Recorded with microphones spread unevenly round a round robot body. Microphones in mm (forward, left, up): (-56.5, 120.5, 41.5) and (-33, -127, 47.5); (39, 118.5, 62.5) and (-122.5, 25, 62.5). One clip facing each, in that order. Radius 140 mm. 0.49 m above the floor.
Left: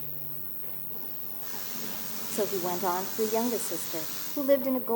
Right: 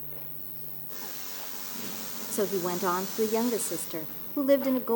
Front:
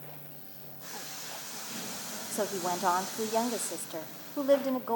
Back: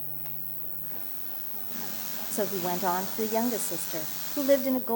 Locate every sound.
0.0 s an insect: straight behind, 1.1 m
2.3 s a woman speaking: 115° right, 0.7 m